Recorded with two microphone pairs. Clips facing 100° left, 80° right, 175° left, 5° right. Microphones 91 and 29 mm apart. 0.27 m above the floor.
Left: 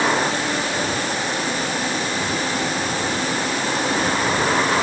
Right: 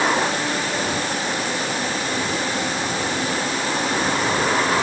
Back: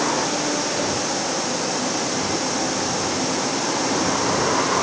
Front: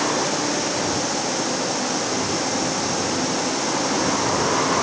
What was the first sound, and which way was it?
Only background noise.